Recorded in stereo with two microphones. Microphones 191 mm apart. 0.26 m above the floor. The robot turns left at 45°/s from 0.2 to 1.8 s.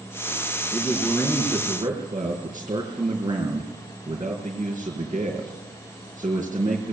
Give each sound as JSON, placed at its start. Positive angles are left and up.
{"t": 0.7, "sound": "a man speaking", "azimuth_deg": 25, "distance_m": 4.5}